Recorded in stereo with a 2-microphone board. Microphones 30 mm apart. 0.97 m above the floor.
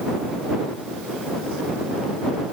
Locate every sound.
Only background noise.